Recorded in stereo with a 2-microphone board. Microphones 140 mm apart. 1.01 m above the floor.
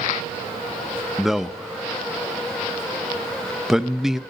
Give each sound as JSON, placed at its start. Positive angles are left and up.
{"t": 1.2, "sound": "a man speaking", "side_deg": -5, "distance_m": 0.9}